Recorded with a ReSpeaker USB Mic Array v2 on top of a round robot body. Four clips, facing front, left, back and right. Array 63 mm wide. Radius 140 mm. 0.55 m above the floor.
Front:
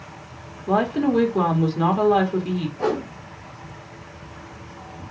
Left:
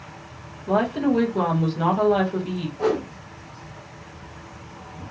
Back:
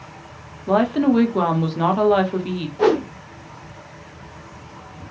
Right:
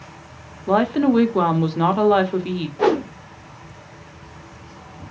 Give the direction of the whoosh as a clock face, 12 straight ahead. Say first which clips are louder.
Right 5 dB, back 9 dB; 4 o'clock.